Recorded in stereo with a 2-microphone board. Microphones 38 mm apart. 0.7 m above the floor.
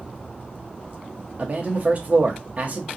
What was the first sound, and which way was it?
A man speaking, 40° right (ahead or behind).